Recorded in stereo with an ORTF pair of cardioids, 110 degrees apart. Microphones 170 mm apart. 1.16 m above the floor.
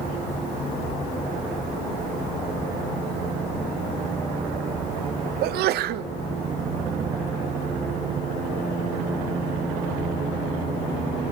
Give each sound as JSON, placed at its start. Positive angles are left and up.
{"t": 5.4, "sound": "a sneeze", "azimuth_deg": -70, "distance_m": 0.5}